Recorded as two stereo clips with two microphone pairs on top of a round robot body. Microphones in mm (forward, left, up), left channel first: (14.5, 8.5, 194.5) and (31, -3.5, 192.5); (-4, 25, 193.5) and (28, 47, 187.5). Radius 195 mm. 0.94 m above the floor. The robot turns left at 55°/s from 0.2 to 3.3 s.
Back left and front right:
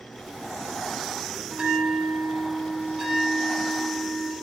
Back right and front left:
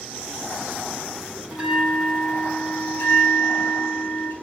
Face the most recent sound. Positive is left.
turn(degrees=-115)